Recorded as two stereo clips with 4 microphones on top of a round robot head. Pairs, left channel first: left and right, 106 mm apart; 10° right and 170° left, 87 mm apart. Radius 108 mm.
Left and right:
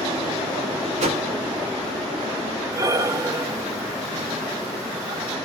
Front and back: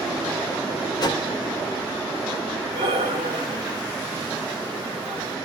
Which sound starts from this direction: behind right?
Breathing, at 2.7 s.